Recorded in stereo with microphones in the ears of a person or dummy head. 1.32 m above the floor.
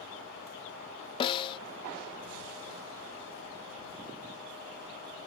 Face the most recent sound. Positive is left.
turn(degrees=35)  # may be behind; listen again after turning